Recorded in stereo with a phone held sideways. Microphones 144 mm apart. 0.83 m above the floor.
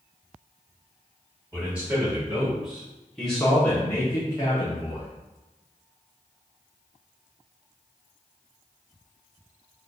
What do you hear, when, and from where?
1.5 s a man speaking: 10° right (ahead or behind), 2.0 m; by 5.1 s 30° left (ahead or behind), 1.2 m